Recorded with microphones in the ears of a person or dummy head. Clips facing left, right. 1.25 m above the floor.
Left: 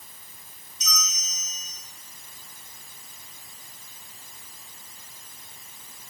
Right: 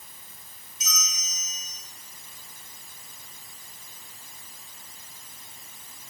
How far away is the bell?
About 2 m.